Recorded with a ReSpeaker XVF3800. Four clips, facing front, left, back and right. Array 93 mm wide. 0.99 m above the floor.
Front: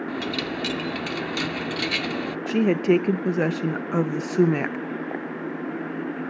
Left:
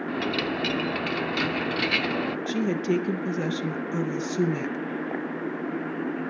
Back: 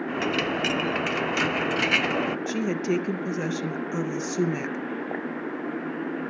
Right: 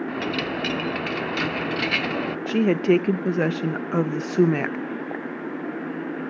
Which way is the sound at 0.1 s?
165° right.